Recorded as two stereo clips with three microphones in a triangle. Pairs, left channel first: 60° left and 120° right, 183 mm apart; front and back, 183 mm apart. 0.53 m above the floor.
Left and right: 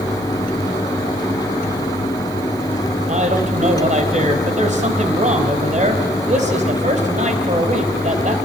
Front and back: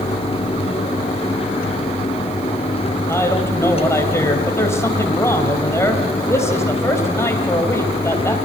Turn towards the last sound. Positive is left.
turn(degrees=-75)